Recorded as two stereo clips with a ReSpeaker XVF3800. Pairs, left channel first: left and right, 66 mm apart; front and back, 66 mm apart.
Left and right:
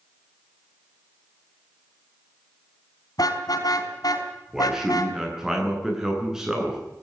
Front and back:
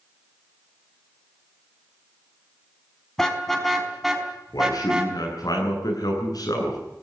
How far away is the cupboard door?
No cupboard door in this recording.